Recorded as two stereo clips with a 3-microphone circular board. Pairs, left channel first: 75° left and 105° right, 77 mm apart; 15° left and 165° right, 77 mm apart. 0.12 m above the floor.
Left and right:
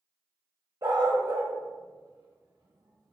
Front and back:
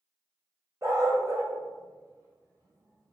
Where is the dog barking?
120° right, 1.2 m.